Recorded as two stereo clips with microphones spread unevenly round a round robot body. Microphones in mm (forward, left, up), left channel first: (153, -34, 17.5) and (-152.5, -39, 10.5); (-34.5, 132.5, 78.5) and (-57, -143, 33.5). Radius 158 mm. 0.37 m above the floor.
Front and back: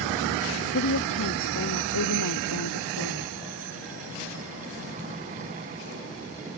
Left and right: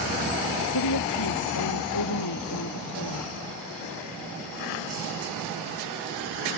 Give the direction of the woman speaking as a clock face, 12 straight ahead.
10 o'clock.